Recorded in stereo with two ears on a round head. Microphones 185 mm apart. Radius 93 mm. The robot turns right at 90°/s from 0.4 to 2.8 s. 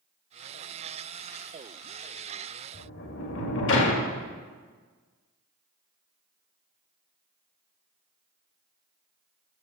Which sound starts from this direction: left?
A sliding door, at 2.7 s.